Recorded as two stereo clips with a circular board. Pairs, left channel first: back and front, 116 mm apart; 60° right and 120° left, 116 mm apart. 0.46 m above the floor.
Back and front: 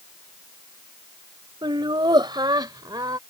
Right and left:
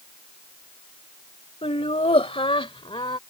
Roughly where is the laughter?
Ahead right.